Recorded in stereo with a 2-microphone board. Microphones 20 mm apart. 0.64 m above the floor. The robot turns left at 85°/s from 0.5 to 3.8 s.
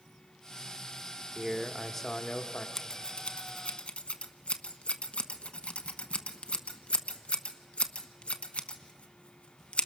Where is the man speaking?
150° right, 1.3 m; by 2.7 s 100° left, 1.3 m.